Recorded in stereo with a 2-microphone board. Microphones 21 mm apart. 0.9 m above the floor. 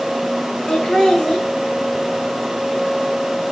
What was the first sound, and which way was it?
Laughter, 45° left (ahead or behind).